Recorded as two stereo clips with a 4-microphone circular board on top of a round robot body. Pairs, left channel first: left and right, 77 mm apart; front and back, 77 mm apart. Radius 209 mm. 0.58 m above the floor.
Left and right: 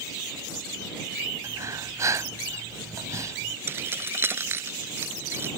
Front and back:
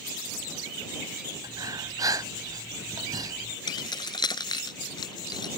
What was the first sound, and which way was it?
Breathing, 140° right.